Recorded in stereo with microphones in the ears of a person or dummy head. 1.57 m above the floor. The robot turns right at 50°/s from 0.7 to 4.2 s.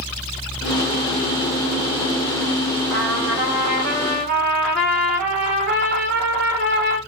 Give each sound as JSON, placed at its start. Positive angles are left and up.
{"t": 2.9, "sound": "a trumpet", "azimuth_deg": 170, "distance_m": 2.5}